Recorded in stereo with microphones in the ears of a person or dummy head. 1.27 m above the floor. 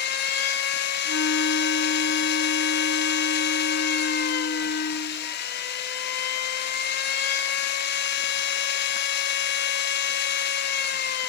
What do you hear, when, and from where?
0.0 s a machine running: 50° left (ahead or behind), 1.1 m
1.0 s a flute: 75° left (ahead or behind), 8.5 m